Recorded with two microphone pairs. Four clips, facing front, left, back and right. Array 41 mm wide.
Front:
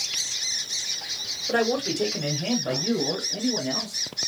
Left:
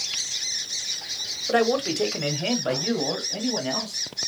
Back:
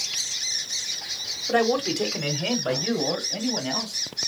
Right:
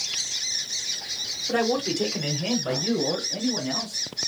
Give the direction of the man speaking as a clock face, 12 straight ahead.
9 o'clock.